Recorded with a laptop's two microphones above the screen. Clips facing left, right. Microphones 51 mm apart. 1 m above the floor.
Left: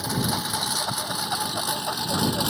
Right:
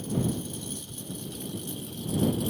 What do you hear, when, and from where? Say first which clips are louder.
0.0 s a lawn mower: left 3 dB; 85° left